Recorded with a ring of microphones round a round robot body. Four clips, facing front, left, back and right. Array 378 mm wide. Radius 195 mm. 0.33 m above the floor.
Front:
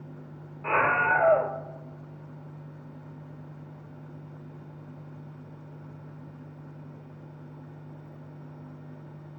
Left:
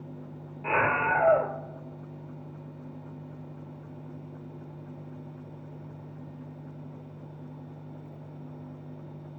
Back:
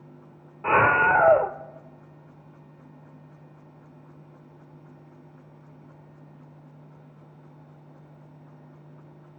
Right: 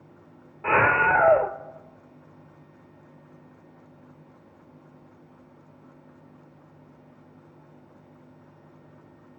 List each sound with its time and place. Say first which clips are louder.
0.6 s a scream: right 5 dB, back 5 dB; 145° right, 1.0 m